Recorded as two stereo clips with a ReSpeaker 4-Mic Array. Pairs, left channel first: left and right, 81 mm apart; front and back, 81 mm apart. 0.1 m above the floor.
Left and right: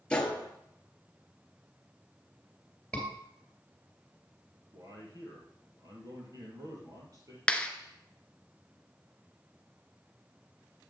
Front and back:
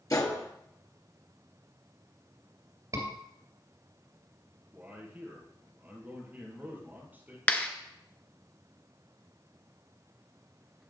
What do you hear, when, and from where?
0.1 s a gunshot: 20° left, 1.8 m
2.9 s a scream: 170° left, 2.5 m
4.7 s a man speaking: 115° right, 2.5 m
7.5 s a clap: 40° left, 1.0 m